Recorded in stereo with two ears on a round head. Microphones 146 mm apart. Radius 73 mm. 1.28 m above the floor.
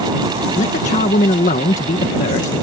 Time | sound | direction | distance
0.6 | a man speaking | 50° left (ahead or behind) | ?